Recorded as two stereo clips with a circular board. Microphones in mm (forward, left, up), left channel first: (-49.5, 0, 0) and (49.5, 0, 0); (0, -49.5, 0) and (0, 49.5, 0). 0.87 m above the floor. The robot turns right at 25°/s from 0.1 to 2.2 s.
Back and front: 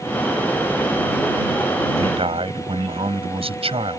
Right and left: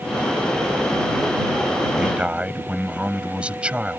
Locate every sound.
2.0 s a man speaking: 5° left; by 4.0 s 10° left